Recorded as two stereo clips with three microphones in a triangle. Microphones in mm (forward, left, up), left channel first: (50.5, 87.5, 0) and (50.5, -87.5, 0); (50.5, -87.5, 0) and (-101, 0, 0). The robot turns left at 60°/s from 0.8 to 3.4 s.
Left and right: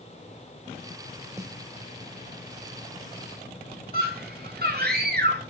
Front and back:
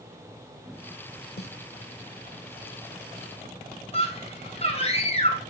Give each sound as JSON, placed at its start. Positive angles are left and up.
{"t": 1.4, "sound": "a snare drum", "azimuth_deg": -15, "distance_m": 0.6}
{"t": 3.9, "sound": "a scream", "azimuth_deg": -80, "distance_m": 2.0}